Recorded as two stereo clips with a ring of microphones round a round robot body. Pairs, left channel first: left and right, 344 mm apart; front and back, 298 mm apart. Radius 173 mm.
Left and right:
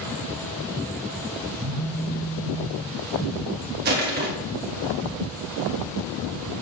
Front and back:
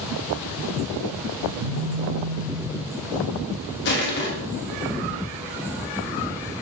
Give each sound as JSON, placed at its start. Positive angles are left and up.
{"t": 1.6, "sound": "a phone buzzing", "azimuth_deg": -165, "distance_m": 0.7}
{"t": 3.9, "sound": "crushing", "azimuth_deg": -40, "distance_m": 1.3}